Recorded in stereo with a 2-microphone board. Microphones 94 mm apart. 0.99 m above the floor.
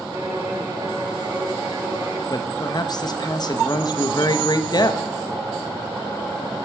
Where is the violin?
45° right (ahead or behind), 3.5 m.